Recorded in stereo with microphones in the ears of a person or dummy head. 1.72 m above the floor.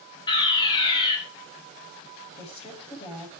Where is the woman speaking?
35° left (ahead or behind), 9.5 m.